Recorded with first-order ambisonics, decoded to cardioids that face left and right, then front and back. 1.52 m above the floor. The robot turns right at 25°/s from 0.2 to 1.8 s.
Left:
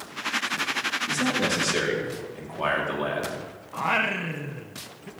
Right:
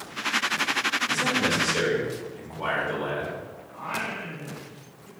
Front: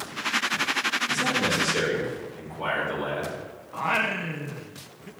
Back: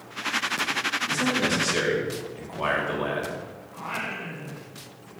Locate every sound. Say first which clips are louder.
1.1 s a man speaking: right 1 dB, even; 110° left, 4 m; by 3.4 s 130° left, 4 m
3.7 s singing: left 7 dB, front 7 dB; 55° left, 0.8 m